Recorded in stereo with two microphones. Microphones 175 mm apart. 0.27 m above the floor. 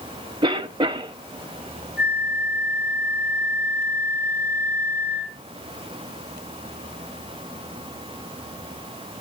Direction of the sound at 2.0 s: 70° left (ahead or behind).